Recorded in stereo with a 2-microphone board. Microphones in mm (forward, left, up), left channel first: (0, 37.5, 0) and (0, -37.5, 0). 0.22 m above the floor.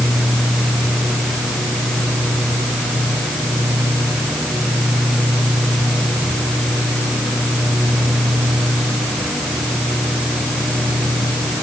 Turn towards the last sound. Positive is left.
No sound to turn to.